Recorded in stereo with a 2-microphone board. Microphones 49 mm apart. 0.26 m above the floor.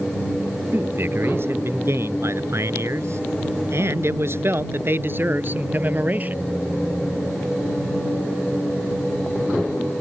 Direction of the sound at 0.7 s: 55° right (ahead or behind).